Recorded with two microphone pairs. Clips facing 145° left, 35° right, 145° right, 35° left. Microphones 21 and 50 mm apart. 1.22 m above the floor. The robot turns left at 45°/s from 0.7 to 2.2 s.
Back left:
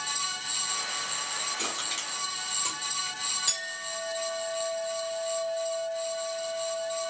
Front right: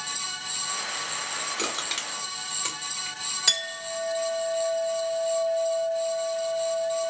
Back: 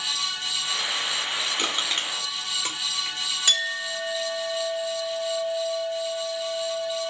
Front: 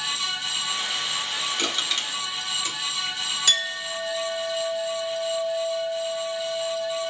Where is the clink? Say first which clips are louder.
Front right 7 dB, back 1 dB; 75° right, 2.5 m.